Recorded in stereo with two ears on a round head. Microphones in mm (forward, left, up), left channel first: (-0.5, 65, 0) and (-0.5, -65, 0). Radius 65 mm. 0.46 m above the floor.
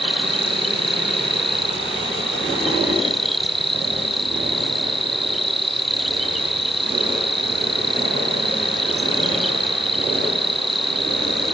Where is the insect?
Centre (ahead or behind).